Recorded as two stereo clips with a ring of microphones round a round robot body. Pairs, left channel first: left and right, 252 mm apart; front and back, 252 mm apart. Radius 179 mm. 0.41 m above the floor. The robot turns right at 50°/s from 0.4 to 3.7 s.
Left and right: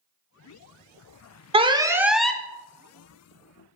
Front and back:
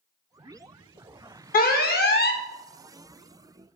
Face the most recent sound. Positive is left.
turn(degrees=75)